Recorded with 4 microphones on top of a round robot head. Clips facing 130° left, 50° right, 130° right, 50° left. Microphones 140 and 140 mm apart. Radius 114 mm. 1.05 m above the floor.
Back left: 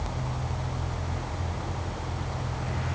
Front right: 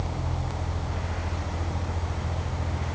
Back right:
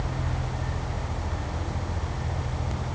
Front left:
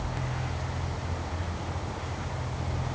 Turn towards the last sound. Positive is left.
No sound to turn to.